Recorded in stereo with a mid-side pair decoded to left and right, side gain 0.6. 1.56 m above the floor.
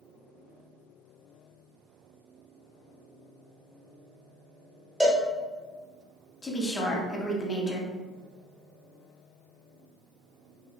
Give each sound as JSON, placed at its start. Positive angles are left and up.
{"t": 5.0, "sound": "a cowbell", "azimuth_deg": -10, "distance_m": 1.0}
{"t": 6.4, "sound": "a woman speaking", "azimuth_deg": 25, "distance_m": 0.8}